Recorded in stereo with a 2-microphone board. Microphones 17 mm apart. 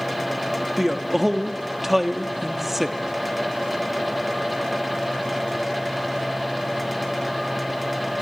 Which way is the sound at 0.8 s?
10° right (ahead or behind).